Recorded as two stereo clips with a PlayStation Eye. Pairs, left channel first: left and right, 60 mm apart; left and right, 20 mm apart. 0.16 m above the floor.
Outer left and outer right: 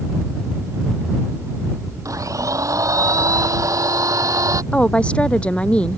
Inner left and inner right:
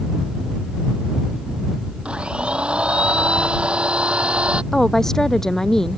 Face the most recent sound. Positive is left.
turn(degrees=20)  # may be behind; listen again after turning